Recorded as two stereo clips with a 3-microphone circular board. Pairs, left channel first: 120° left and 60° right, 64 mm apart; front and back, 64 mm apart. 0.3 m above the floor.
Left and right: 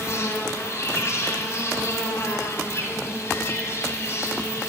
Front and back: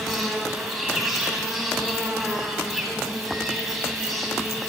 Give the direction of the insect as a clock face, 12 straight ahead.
9 o'clock.